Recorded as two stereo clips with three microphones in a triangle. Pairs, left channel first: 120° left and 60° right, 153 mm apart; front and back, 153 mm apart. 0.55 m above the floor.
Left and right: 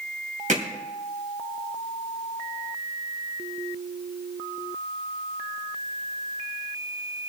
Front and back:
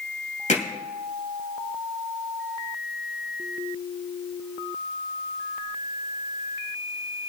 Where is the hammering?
30° right, 2 m.